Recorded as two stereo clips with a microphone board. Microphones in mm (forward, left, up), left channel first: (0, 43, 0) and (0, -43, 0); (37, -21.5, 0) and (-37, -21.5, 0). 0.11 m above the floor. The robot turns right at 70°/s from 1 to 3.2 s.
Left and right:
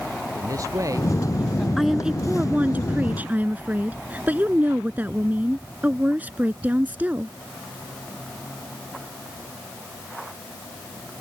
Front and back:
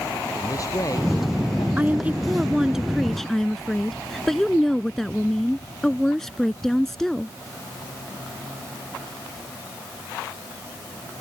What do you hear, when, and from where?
0.3 s a man speaking: 40° right; by 1.7 s 5° left
1.8 s a woman speaking: 175° right; by 7.3 s 75° right